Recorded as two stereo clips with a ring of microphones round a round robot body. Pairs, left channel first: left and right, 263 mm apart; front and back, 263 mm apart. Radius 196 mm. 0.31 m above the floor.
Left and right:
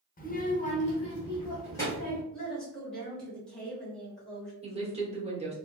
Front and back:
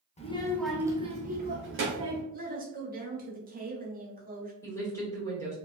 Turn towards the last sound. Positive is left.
turn(degrees=-65)